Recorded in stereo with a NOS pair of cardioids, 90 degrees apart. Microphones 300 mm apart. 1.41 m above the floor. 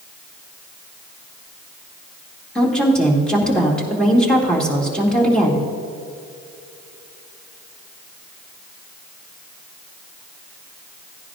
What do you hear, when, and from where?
2.5 s a woman speaking: straight ahead, 2.5 m